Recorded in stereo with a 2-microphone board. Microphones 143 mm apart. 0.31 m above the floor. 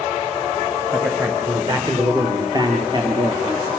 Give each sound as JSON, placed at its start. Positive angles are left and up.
{"t": 0.9, "sound": "a man speaking", "side_deg": -15, "distance_m": 5.5}